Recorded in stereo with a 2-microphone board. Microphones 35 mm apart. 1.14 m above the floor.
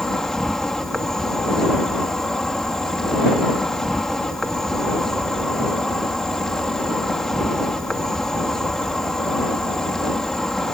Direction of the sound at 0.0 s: 15° left (ahead or behind).